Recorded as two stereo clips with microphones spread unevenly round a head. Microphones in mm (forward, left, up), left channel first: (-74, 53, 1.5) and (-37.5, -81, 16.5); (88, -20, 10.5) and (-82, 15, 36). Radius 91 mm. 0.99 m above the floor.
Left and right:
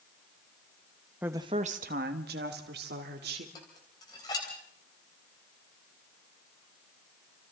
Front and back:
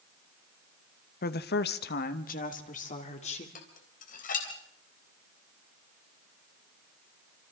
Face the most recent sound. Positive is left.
turn(degrees=35)